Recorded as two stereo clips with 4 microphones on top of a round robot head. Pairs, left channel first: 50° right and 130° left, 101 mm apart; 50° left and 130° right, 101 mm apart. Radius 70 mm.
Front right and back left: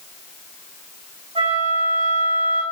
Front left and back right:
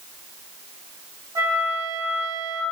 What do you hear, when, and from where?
1.4 s a flute: 170° left, 4.5 m